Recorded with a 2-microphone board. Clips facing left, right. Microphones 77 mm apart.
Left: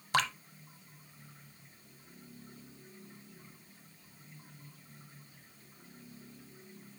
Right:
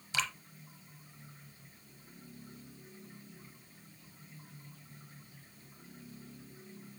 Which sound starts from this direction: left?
Dripping, at 0.1 s.